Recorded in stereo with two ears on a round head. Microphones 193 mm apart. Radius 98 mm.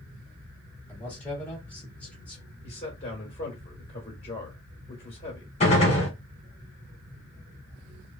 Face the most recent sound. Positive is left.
turn(degrees=30)  # may be behind; listen again after turning